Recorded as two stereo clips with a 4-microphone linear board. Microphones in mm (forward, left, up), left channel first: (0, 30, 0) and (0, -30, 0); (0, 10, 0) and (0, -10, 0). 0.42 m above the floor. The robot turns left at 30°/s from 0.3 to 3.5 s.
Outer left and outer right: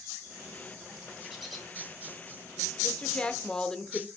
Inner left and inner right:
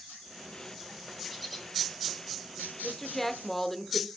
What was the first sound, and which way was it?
A bird, 10° right (ahead or behind).